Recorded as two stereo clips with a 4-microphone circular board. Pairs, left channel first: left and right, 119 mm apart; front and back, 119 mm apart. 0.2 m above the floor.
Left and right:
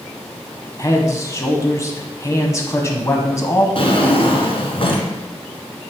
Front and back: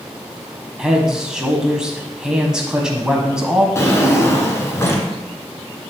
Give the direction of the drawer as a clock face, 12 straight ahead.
10 o'clock.